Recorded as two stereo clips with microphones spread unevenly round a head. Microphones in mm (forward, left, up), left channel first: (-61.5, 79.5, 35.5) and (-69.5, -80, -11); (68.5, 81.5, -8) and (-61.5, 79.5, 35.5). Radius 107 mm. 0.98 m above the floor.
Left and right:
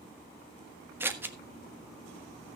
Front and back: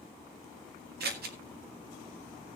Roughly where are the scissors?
Behind.